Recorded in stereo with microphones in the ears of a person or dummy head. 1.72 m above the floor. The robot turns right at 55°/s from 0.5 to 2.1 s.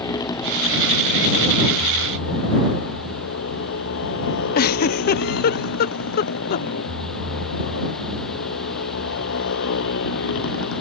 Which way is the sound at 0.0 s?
20° left.